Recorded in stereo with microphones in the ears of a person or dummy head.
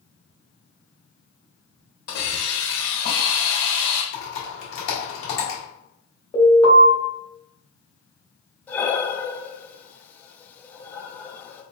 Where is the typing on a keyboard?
80° left, 1.7 m.